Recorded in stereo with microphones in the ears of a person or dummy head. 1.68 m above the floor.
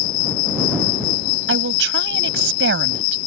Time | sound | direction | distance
0.0 | an insect | 50° left (ahead or behind) | ?
1.5 | a woman speaking | 70° right (ahead or behind) | ?